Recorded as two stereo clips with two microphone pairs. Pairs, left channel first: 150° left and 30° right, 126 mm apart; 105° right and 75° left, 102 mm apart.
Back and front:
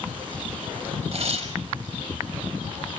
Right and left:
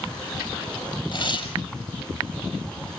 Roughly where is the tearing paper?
Right.